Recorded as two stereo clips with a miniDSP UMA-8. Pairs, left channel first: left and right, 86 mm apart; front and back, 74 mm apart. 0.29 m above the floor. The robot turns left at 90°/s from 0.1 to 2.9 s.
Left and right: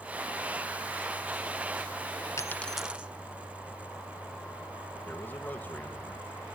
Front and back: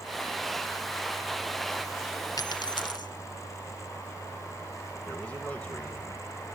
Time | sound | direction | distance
2.4 | a dropped coin | 35° left | 0.8 m
5.1 | a man speaking | 45° left | 1.4 m